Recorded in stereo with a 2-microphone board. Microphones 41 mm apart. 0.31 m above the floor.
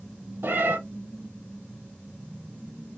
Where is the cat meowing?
65° right (ahead or behind), 1.5 m.